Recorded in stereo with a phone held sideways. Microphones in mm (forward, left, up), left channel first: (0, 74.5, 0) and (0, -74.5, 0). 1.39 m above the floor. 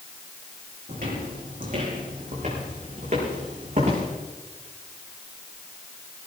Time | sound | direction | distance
0.9 | footsteps | 65° right (ahead or behind) | 4.5 m